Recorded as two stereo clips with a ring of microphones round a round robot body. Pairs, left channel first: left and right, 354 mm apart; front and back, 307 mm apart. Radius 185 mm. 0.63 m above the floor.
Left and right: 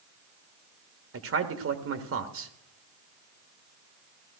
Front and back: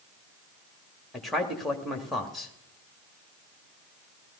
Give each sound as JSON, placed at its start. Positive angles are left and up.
{"t": 1.1, "sound": "a man speaking", "azimuth_deg": -90, "distance_m": 1.4}